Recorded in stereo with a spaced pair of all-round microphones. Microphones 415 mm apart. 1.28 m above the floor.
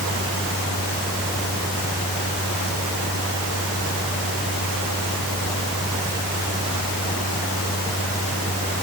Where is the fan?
25° left (ahead or behind).